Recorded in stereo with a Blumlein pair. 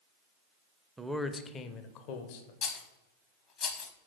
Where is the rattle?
30° left, 0.8 m.